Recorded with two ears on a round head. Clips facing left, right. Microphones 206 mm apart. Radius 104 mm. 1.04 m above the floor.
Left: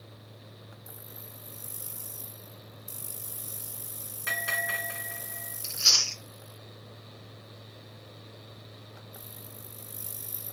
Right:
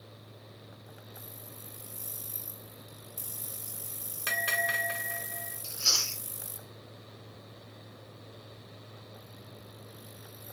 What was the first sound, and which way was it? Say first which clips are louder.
A bell: right 2 dB; 50° right (ahead or behind).